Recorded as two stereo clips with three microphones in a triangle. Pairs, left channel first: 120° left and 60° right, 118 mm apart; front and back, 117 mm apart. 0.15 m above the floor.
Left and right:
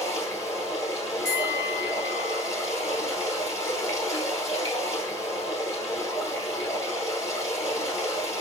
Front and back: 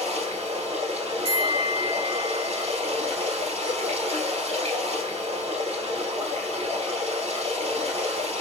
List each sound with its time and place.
0.0 s running water: straight behind, 1.9 m
1.2 s a bell: 175° right, 1.5 m